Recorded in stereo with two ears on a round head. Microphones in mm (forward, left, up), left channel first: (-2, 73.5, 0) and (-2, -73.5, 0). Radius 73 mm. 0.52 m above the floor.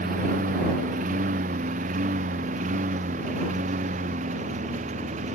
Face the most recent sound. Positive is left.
turn(degrees=-45)  # may be behind; listen again after turning